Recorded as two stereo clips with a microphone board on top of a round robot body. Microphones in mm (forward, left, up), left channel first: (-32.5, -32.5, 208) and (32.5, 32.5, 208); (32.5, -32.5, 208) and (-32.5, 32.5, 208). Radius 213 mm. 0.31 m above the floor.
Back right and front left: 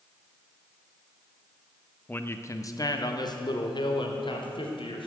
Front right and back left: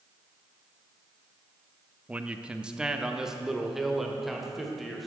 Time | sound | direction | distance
2.1 | a man speaking | 170° right | 1.0 m